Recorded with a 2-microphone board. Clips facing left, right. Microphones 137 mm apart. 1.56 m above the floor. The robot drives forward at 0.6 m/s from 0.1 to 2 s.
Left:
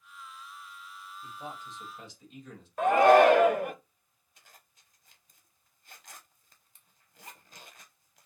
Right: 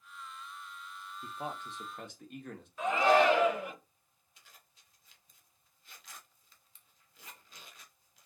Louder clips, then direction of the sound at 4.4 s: Left 3 dB; 50° left (ahead or behind).